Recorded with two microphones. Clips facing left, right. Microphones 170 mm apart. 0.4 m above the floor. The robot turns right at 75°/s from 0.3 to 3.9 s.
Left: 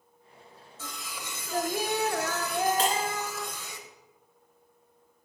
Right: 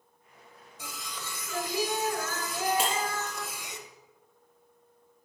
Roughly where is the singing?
Ahead.